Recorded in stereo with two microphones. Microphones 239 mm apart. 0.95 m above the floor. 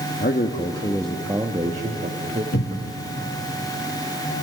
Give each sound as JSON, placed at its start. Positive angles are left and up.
{"t": 0.2, "sound": "a man speaking", "side_deg": 45, "distance_m": 1.2}
{"t": 2.5, "sound": "a cupboard door", "side_deg": 75, "distance_m": 1.6}